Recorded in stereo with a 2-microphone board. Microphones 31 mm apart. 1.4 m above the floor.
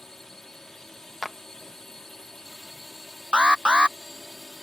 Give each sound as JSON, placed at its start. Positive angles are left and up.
{"t": 0.0, "sound": "a drone", "side_deg": 10}
{"t": 1.2, "sound": "a clap", "side_deg": 5}
{"t": 3.3, "sound": "an alarm", "side_deg": -35}